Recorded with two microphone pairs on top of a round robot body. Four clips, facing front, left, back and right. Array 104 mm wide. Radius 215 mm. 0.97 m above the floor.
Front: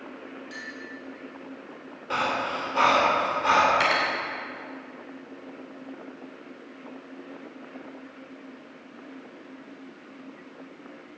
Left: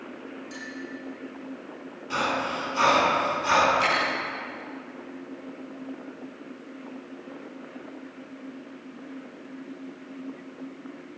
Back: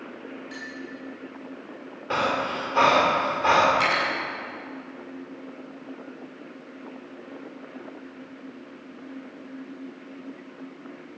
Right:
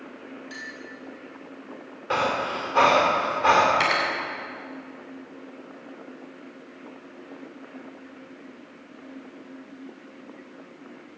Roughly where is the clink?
Right.